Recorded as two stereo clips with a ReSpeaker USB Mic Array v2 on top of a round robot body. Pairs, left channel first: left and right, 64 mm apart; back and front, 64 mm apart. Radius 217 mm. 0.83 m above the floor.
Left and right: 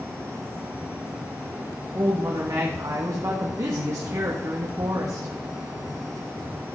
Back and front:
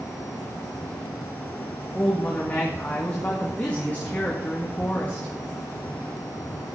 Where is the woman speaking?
115° right, 2 m.